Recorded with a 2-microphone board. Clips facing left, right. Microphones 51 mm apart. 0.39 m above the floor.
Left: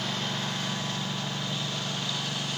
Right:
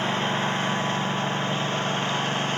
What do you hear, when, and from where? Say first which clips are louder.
0.0 s a lawn mower: right 7 dB; 35° right (ahead or behind); by 2.6 s 40° right (ahead or behind)